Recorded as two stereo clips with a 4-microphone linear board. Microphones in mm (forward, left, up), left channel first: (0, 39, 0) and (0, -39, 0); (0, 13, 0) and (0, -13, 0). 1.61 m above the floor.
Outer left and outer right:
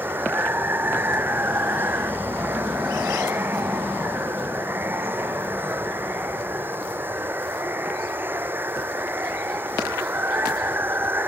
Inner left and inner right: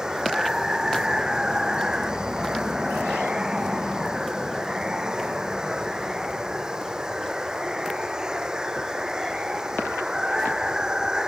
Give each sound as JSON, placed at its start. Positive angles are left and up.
{"t": 0.0, "sound": "running water", "side_deg": -25}